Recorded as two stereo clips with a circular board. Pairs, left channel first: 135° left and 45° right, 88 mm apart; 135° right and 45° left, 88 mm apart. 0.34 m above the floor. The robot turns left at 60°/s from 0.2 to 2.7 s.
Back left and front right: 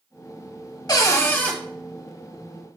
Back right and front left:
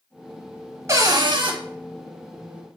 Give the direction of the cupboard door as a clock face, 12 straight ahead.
9 o'clock.